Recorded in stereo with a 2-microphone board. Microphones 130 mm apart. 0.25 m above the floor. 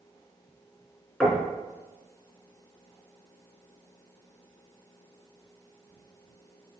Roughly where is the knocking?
Centre.